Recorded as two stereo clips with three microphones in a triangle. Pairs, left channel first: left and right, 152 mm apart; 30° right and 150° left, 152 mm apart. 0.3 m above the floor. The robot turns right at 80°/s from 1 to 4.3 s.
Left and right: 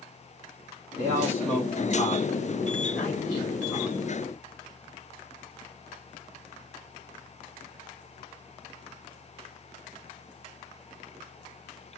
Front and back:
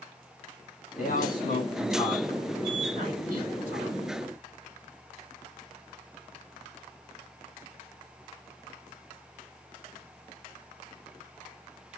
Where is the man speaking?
35° right, 3.5 m; by 4.0 s 160° right, 3.5 m.